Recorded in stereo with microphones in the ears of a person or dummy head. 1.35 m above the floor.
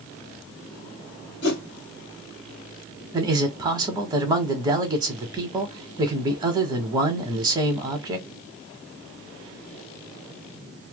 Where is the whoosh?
65° left (ahead or behind), 1.4 m.